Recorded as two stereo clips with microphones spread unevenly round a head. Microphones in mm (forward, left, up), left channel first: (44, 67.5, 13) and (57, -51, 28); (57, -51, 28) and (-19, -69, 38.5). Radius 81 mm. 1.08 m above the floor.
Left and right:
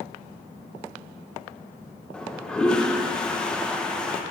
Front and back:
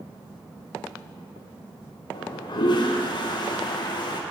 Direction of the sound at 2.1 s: 15° left.